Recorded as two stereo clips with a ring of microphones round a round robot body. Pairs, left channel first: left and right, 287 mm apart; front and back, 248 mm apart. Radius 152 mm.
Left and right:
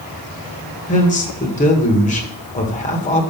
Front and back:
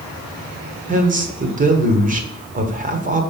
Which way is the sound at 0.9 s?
140° left.